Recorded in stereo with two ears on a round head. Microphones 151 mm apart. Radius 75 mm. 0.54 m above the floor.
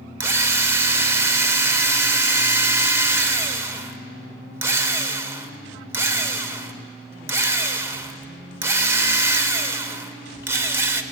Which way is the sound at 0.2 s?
15° right (ahead or behind).